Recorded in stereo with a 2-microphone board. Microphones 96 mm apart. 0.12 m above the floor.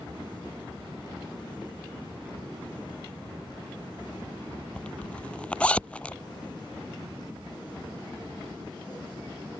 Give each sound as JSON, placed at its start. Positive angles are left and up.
{"t": 4.8, "sound": "a zipper", "side_deg": 15}